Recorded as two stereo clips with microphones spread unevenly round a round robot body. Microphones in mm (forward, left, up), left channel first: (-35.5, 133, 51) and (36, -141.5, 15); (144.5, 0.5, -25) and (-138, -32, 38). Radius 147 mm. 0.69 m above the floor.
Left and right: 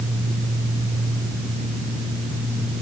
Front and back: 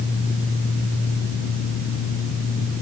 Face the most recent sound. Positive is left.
No sound to turn to.